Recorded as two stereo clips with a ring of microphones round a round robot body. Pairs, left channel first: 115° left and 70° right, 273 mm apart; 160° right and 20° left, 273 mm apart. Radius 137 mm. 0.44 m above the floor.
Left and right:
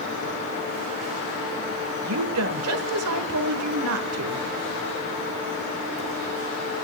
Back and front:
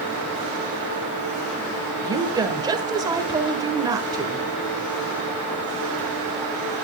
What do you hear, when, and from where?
2.0 s a woman speaking: 50° right, 1.4 m